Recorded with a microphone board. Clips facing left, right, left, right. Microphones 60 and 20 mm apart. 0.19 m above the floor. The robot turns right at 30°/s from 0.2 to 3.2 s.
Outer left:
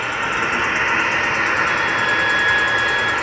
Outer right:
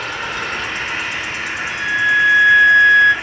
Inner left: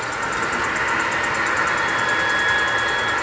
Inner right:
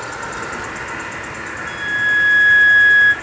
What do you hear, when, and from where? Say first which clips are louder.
0.0 s an insect: outer left 3 dB, inner left 3 dB; 15° left, 1.9 m; by 3.2 s 105° left, 1.9 m
1.6 s a flute: outer right 1 dB, inner right 1 dB; 90° right, 8 m; by 3.1 s 45° right, 8 m